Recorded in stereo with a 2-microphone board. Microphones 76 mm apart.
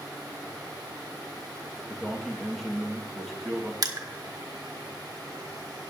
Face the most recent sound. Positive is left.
turn(degrees=-55)  # may be behind; listen again after turning